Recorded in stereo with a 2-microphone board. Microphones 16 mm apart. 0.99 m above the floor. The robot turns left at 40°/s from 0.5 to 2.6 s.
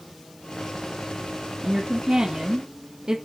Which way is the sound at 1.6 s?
20° right.